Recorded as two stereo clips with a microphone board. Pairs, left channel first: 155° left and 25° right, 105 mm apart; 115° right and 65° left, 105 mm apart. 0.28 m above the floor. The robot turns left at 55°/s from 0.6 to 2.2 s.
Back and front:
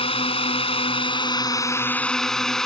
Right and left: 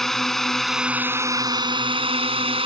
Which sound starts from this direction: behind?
A drone, at 0.0 s.